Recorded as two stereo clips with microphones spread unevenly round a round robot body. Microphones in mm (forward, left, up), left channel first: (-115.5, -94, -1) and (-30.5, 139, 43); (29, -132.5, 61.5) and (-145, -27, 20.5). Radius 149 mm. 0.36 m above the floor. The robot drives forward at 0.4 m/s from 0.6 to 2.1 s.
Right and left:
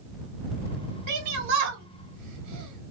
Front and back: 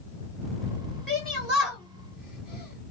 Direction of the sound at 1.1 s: 60° left.